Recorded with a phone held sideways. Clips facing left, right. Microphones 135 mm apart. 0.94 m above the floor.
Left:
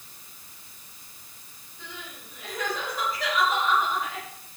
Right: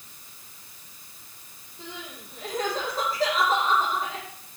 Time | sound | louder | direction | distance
1.8 | crying | right 3 dB | 35° right (ahead or behind) | 9 m